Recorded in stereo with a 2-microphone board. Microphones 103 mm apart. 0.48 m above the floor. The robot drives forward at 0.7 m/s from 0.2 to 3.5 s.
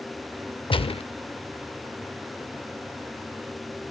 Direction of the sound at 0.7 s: 55° left (ahead or behind).